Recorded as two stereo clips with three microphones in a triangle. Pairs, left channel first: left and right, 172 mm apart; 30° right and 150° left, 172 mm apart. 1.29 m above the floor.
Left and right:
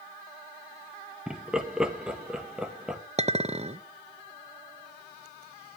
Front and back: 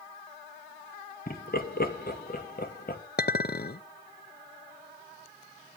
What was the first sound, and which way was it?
Laughter, 5° right.